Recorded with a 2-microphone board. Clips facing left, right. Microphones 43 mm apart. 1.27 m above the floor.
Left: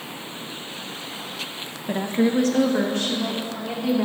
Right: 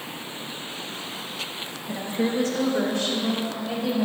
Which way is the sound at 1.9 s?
45° left (ahead or behind).